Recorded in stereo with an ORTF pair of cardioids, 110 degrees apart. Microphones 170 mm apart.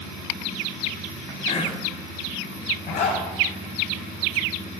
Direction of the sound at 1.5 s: 45° left.